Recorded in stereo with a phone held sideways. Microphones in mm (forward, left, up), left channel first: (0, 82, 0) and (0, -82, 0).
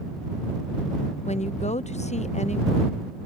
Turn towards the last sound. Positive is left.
turn(degrees=45)  # may be behind; listen again after turning